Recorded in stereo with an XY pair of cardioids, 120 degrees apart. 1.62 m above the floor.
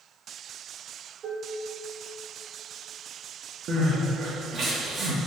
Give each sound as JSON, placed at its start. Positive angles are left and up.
{"t": 1.2, "sound": "dishes clattering", "azimuth_deg": -40, "distance_m": 1.8}
{"t": 3.7, "sound": "crying", "azimuth_deg": -50, "distance_m": 2.5}